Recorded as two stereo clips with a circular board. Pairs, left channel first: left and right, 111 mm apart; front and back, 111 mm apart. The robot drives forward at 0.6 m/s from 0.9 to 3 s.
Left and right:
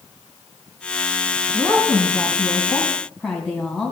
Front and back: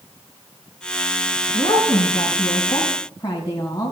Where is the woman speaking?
Straight ahead, 2.5 m.